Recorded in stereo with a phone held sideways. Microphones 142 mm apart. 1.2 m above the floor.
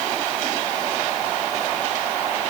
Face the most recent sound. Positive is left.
No sound to turn to.